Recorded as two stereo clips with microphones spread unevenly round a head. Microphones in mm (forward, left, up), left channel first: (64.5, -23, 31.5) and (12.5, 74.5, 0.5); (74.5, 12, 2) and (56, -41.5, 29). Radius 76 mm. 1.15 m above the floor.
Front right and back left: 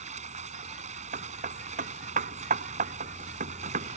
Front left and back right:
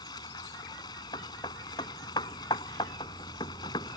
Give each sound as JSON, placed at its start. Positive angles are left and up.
{"t": 0.0, "sound": "running water", "azimuth_deg": 95}
{"t": 1.1, "sound": "hammering", "azimuth_deg": 105}